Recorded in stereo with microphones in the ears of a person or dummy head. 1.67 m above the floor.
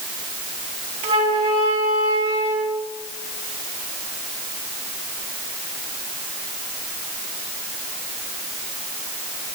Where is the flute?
25° right (ahead or behind), 0.7 m.